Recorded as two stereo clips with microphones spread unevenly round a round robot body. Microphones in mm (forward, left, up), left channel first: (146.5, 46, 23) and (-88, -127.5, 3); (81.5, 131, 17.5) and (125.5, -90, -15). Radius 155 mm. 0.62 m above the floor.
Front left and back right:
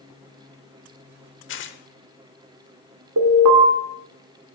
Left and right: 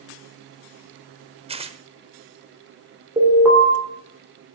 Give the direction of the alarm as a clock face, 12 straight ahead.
5 o'clock.